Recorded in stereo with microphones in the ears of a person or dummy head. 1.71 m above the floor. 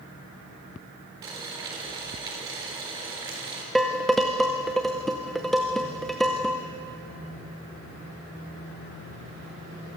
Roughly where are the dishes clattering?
Centre.